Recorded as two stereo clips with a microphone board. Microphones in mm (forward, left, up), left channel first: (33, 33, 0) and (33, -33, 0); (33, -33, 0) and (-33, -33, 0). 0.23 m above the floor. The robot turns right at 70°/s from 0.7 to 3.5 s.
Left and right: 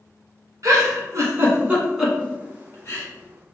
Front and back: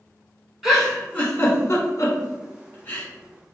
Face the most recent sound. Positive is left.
turn(degrees=100)